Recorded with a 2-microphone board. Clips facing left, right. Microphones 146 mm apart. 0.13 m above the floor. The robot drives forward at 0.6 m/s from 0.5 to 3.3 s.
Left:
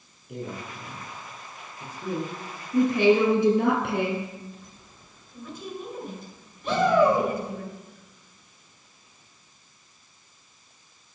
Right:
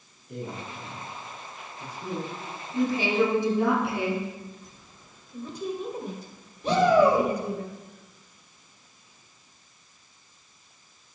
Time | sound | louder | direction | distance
0.3 | a man speaking | left 1 dB | 5° left (ahead or behind) | 2.5 m
2.7 | a woman speaking | left 5 dB | 60° left (ahead or behind) | 2.5 m
5.3 | a woman speaking | right 5 dB | 40° right (ahead or behind) | 2.0 m
6.6 | a shout | right 1 dB | 35° right (ahead or behind) | 2 m